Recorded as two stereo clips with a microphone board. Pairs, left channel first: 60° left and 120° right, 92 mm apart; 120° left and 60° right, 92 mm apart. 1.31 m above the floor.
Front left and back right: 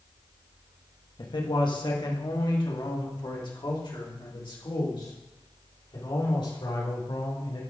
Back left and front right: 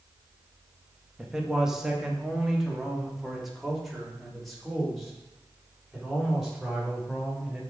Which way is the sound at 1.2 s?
25° left.